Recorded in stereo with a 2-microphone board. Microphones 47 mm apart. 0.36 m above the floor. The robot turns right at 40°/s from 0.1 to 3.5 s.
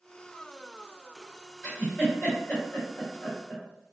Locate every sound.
1.6 s a giggle: 10° left (ahead or behind), 1.7 m; by 3.6 s 35° left (ahead or behind), 1.7 m